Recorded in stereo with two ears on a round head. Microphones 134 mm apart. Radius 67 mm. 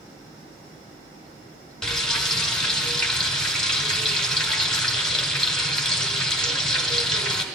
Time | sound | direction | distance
1.8 | frying | 5° left (ahead or behind) | 2.5 m